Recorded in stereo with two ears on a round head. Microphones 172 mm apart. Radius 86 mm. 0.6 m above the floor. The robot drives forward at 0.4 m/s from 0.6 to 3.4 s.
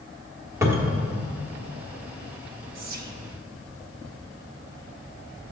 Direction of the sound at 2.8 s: 50° right (ahead or behind).